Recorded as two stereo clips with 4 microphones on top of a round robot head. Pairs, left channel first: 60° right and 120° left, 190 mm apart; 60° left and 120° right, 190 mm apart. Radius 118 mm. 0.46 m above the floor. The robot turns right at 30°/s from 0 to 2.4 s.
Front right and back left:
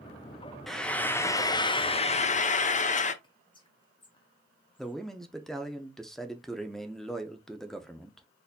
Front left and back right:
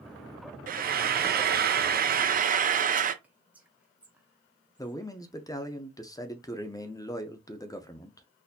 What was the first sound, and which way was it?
Frying, 145° right.